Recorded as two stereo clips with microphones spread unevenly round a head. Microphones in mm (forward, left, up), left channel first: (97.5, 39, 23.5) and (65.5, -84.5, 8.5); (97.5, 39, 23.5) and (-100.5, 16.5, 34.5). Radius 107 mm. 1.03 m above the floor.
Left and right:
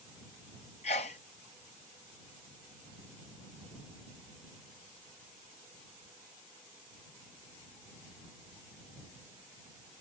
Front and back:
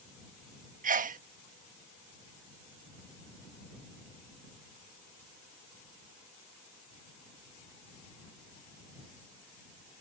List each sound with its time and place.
0.8 s a sneeze: 135° left